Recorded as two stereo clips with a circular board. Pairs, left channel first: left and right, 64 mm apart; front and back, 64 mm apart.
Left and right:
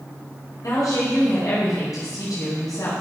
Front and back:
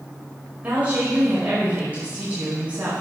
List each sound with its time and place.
0.6 s a woman speaking: 115° left, 5 m